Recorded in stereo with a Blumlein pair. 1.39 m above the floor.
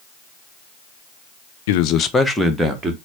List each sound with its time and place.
1.7 s a man speaking: 55° left, 0.6 m; by 3.0 s 15° right, 1.1 m